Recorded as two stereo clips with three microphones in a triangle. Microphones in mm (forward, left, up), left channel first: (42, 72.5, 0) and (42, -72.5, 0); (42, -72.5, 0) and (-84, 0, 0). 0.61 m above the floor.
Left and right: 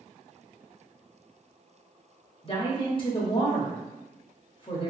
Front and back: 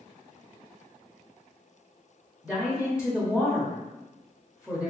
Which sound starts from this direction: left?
A woman speaking, at 2.4 s.